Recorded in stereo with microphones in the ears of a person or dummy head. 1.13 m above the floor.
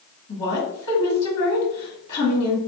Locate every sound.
0.3 s a woman speaking: 30° left (ahead or behind), 1.6 m